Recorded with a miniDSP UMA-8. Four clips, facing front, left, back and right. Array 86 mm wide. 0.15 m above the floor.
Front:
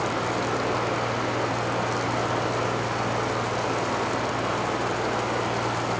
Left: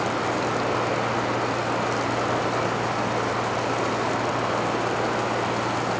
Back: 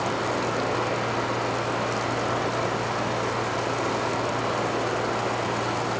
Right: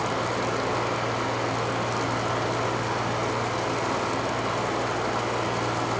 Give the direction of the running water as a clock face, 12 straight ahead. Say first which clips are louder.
Left 2 dB, even; 9 o'clock.